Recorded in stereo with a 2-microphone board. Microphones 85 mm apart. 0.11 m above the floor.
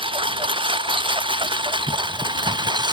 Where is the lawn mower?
85° right; by 2.9 s 60° right (ahead or behind).